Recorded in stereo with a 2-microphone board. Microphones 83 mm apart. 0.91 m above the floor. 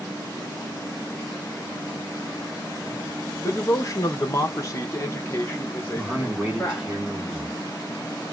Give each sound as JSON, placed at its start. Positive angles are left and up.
{"t": 3.4, "sound": "a man speaking", "side_deg": 30, "distance_m": 0.8}
{"t": 6.0, "sound": "a man speaking", "side_deg": -10, "distance_m": 1.9}